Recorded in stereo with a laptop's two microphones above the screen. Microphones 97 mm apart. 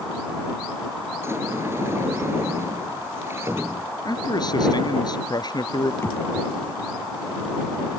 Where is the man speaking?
45° left (ahead or behind).